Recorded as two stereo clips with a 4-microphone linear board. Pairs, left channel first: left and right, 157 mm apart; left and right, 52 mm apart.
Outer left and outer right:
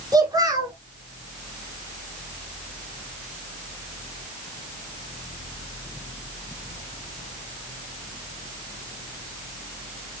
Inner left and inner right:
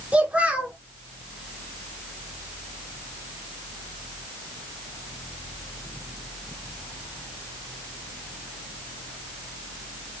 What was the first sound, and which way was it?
A child speaking, 25° right (ahead or behind).